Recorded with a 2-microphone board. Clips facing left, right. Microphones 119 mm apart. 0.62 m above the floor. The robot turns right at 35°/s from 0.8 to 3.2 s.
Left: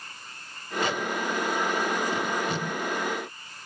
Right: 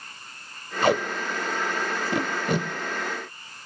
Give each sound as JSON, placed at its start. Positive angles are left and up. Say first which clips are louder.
{"t": 0.8, "sound": "tape being pulled", "louder": "right 6 dB", "side_deg": -60, "distance_m": 1.6}